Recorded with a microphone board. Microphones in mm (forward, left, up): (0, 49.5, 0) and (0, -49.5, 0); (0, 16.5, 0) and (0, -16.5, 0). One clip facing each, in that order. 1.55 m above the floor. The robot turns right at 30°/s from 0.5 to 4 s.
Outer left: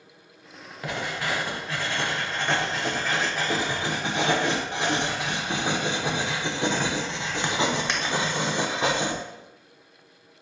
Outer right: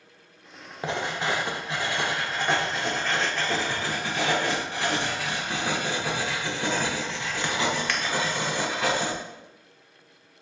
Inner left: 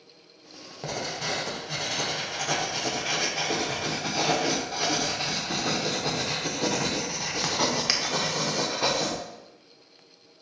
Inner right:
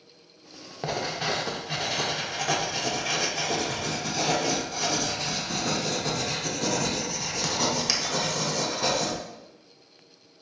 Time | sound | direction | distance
0.8 | writing | 55° right | 0.5 m